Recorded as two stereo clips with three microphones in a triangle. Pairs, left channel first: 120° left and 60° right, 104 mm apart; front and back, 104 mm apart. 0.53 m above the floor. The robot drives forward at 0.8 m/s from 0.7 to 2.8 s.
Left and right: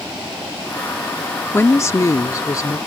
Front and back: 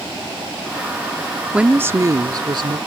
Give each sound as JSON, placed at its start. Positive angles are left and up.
{"t": 1.5, "sound": "a woman speaking", "azimuth_deg": 115}